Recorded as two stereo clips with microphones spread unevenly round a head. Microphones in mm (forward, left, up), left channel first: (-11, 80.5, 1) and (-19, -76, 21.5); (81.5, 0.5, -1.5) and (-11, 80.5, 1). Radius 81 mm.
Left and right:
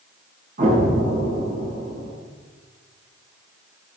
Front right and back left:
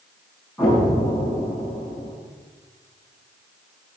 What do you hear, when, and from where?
0.6 s an explosion: 130° right, 7.5 m